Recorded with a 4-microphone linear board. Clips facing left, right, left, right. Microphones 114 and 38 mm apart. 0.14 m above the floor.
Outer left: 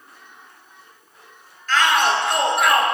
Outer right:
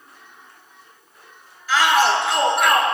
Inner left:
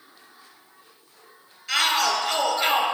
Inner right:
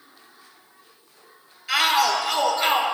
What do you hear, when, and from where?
1.7 s a shout: 10° right (ahead or behind), 2.5 m; by 2.8 s 5° left (ahead or behind), 2.5 m